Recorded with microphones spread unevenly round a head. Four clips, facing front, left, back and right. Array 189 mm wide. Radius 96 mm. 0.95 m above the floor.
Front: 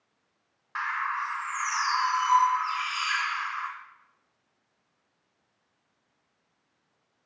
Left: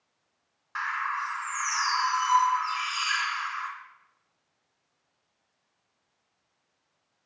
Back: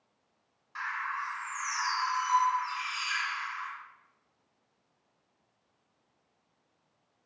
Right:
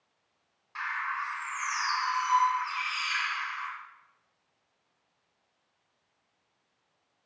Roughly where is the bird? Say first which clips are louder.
Left 3 dB, front 5 dB; ahead left.